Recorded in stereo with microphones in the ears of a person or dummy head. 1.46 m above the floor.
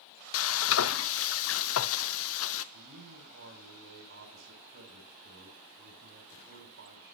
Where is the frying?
70° left (ahead or behind), 0.7 m.